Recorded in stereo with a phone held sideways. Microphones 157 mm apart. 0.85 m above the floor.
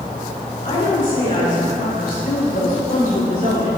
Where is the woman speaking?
50° left (ahead or behind), 3 m; by 3.7 s 70° left (ahead or behind), 6.5 m.